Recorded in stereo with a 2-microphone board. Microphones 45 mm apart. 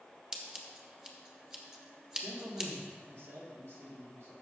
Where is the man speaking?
70° right (ahead or behind), 2.5 m.